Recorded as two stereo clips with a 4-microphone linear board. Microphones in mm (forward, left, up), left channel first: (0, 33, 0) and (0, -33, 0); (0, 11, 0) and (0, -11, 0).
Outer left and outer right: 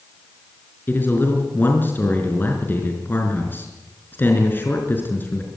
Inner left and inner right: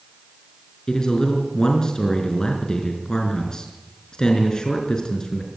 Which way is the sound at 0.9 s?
30° left (ahead or behind).